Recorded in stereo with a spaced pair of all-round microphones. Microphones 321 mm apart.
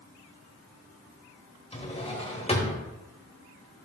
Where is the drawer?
20° left (ahead or behind), 1.1 m.